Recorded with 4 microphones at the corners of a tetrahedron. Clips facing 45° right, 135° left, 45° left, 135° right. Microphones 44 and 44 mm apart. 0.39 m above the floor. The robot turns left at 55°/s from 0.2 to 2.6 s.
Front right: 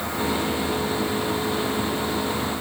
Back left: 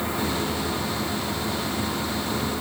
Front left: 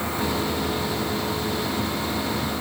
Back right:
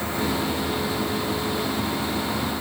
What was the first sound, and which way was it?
Only background noise.